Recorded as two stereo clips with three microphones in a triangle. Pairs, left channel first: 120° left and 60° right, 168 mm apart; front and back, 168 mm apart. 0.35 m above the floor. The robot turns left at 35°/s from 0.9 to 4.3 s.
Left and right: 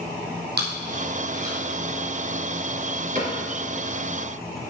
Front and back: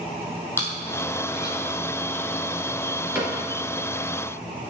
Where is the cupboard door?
100° right, 3 m; by 3.4 s 110° right, 3 m.